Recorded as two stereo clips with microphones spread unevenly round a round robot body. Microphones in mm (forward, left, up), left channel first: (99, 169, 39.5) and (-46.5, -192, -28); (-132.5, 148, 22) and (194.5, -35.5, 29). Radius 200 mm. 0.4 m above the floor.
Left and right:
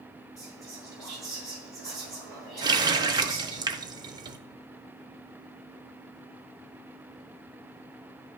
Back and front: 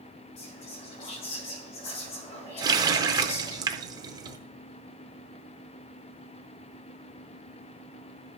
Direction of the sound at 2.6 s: 95° right.